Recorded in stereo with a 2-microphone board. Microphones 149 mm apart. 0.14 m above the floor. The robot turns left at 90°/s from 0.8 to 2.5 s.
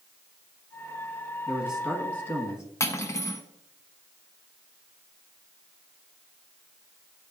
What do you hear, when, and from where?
1.5 s a man speaking: 10° right (ahead or behind), 1.4 m; by 2.6 s 20° left (ahead or behind), 1.4 m
2.8 s cutlery clinking: 20° left (ahead or behind), 0.7 m